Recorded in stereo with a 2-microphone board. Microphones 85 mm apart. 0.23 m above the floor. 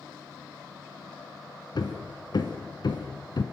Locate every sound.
1.8 s hammering: 60° left (ahead or behind), 2 m